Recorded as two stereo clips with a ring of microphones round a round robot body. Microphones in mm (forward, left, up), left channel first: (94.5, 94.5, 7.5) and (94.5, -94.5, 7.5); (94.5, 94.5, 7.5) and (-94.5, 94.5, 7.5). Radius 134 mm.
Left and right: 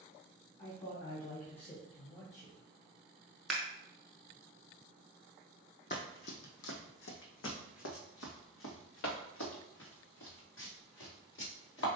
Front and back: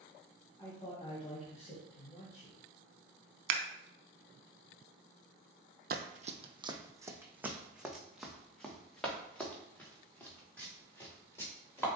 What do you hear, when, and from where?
0.6 s a man speaking: 65° left, 2 m; by 2.6 s 10° left, 1.3 m
3.5 s scissors: straight behind, 0.6 m
5.9 s running footsteps: 145° left, 0.6 m; by 11.9 s 80° left, 3.5 m